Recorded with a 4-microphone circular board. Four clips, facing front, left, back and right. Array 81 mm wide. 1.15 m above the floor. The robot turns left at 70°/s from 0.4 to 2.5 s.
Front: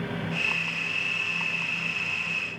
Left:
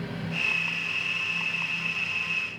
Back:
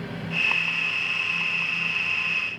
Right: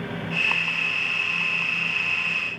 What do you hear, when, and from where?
Only background noise.